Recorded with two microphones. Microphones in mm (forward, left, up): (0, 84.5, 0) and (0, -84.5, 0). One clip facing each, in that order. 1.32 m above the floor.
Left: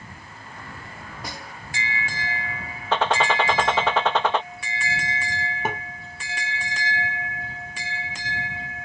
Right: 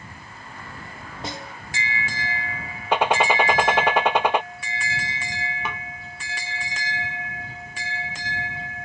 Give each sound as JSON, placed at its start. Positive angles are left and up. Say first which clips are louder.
{"t": 1.2, "sound": "a snare drum", "louder": "right 5 dB", "side_deg": -25}
{"t": 2.9, "sound": "a gunshot", "louder": "right 2 dB", "side_deg": -15}
{"t": 5.7, "sound": "tapping", "louder": "left 7 dB", "side_deg": 50}